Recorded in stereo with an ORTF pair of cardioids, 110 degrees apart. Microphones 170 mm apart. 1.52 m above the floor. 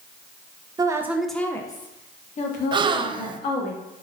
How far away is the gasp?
About 0.7 m.